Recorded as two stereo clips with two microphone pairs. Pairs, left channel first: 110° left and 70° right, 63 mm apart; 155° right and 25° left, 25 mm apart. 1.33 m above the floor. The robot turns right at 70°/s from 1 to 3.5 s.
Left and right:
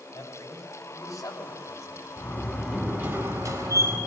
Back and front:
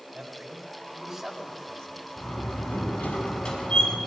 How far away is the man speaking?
About 6 m.